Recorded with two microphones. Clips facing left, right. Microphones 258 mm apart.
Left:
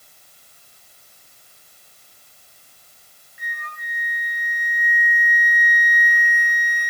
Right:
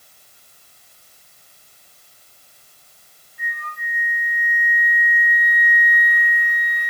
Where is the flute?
20° left (ahead or behind), 1.6 m.